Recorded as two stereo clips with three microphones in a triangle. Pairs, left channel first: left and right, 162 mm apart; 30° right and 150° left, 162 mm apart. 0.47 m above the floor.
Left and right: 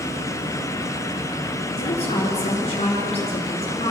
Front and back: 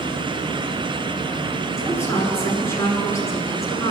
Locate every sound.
1.8 s a woman speaking: 40° left, 7.5 m